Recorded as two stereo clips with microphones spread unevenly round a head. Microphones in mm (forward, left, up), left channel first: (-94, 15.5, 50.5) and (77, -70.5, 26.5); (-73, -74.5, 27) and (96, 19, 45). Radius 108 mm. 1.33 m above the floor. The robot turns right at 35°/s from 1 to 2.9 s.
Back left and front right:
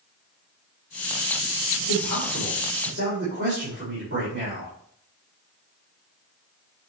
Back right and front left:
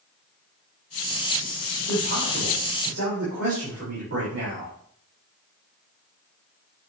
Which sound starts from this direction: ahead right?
A man speaking, at 1.8 s.